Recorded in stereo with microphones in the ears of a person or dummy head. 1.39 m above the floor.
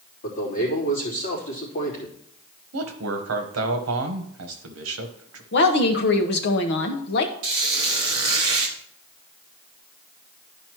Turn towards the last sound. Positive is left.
turn(degrees=-20)  # may be behind; listen again after turning